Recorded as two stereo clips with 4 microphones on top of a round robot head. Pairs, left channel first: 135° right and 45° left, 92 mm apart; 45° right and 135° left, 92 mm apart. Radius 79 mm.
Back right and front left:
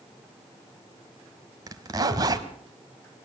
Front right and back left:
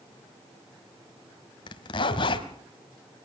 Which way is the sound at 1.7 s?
10° right.